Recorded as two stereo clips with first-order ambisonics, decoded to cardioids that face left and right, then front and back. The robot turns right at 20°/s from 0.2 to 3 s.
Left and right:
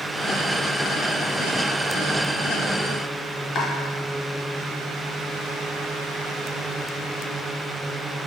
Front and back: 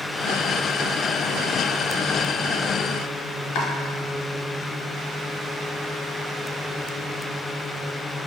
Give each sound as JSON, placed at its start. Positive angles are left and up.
{"t": 3.5, "sound": "chopping", "azimuth_deg": 30, "distance_m": 1.0}